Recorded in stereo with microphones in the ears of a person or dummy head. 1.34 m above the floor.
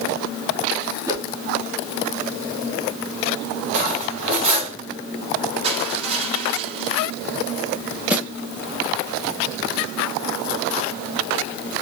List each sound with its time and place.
1.1 s a whoosh: 15° right (ahead or behind), 1.8 m
3.7 s cutlery clinking: 35° right (ahead or behind), 3 m
5.6 s crushing: 35° right (ahead or behind), 3.5 m
8.1 s a snare drum: 10° right (ahead or behind), 0.9 m